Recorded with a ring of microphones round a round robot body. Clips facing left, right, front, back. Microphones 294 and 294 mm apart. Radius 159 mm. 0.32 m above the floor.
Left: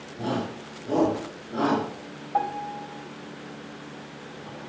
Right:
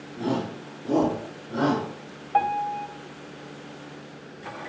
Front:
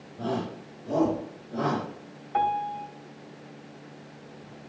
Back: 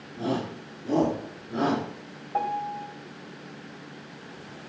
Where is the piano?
75° right, 2 m.